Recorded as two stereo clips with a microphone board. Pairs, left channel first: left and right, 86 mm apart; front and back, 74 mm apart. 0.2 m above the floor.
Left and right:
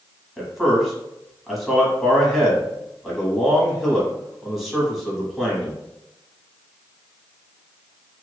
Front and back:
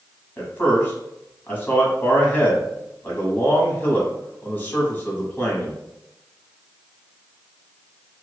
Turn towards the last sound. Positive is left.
turn(degrees=-5)